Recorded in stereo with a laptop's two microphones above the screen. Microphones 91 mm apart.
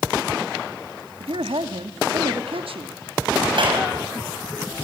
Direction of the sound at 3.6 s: 65° right (ahead or behind).